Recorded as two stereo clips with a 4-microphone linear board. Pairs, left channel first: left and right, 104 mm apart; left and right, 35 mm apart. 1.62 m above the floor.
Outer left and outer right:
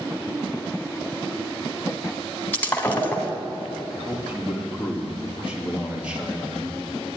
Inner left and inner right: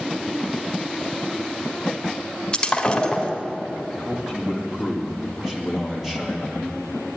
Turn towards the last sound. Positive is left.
turn(degrees=-10)  # may be behind; listen again after turning